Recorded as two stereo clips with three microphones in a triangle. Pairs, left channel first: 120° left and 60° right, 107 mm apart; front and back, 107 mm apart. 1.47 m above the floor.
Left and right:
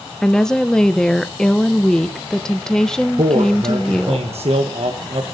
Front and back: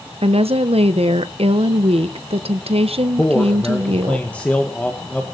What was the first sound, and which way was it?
A woman speaking, 155° right.